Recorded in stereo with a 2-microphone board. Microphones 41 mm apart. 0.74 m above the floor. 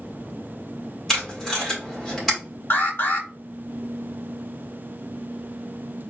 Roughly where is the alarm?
Left.